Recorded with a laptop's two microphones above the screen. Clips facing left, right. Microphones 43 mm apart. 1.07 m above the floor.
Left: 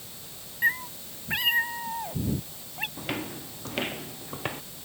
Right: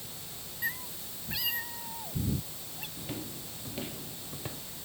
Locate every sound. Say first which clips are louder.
0.6 s a cat meowing: left 10 dB; 40° left (ahead or behind); by 2.9 s 60° left (ahead or behind)
3.0 s footsteps: left 7 dB; 70° left (ahead or behind); by 4.6 s 60° left (ahead or behind)